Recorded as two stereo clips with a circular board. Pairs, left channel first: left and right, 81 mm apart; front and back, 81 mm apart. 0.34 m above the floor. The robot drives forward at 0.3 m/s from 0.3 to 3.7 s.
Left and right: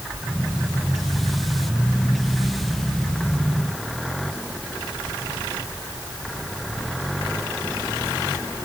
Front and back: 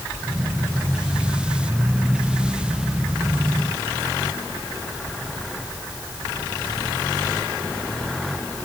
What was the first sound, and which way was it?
Only background noise.